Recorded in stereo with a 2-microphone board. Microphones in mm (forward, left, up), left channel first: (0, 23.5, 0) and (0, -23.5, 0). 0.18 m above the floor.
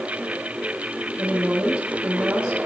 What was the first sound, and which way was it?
A woman speaking, 15° right (ahead or behind).